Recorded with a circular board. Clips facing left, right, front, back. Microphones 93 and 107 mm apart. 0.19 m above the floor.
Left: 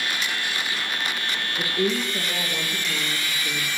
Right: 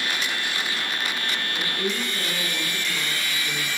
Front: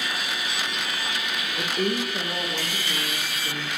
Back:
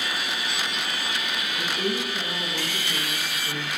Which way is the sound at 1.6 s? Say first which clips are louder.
Left 6 dB, front 3 dB; 30° left.